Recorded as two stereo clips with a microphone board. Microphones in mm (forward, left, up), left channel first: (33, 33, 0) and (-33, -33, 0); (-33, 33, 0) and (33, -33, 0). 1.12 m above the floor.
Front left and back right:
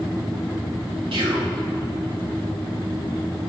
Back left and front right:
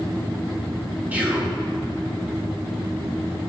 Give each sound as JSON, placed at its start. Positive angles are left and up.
{"t": 1.1, "sound": "whispering", "azimuth_deg": -115, "distance_m": 3.0}